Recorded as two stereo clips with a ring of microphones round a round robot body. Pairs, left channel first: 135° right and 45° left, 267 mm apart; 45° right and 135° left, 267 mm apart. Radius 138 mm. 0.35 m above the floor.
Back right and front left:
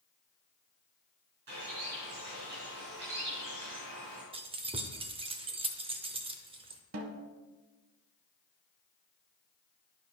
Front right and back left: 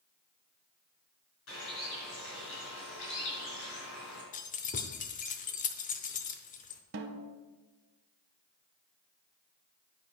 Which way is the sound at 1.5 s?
5° right.